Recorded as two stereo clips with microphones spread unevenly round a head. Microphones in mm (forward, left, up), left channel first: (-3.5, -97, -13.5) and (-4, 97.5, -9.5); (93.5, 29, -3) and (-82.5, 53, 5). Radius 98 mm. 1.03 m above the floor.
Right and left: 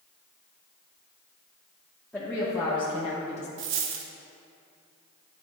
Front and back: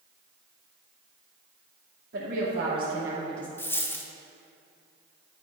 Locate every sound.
2.1 s a woman speaking: 165° right, 1.0 m; by 3.5 s 75° right, 0.8 m
3.6 s a dropped coin: 70° left, 0.7 m